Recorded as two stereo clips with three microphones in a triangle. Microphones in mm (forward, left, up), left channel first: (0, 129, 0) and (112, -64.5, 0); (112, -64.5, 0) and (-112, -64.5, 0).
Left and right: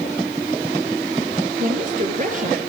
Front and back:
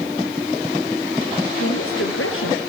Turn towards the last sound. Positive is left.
turn(degrees=-10)